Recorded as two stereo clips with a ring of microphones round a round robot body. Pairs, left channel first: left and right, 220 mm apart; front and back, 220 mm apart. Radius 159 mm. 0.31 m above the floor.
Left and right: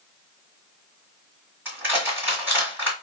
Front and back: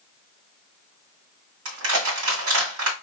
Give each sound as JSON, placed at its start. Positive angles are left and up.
{"t": 1.6, "sound": "crushing", "azimuth_deg": -175, "distance_m": 2.0}